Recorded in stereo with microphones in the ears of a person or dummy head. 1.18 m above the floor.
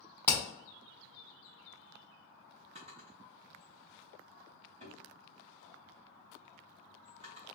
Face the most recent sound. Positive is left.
turn(degrees=-35)  # may be behind; listen again after turning